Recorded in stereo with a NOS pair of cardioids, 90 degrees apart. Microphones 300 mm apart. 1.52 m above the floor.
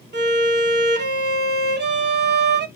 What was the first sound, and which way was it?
A violin, 35° right.